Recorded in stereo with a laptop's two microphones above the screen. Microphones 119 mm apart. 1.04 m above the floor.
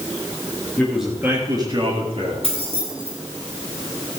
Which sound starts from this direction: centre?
A man speaking, at 0.8 s.